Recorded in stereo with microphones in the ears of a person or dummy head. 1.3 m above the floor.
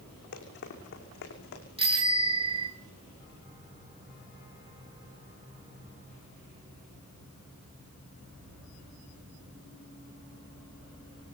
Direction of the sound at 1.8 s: 30° right (ahead or behind).